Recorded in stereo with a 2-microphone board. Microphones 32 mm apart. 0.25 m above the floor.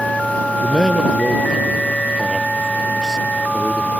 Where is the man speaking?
5° left (ahead or behind).